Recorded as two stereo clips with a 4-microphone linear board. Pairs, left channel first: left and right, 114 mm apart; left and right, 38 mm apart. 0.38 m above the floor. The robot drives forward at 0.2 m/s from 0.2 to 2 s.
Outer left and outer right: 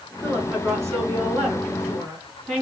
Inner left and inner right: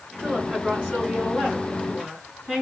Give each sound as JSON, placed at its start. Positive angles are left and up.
{"t": 0.2, "sound": "a woman speaking", "side_deg": -25, "distance_m": 3.0}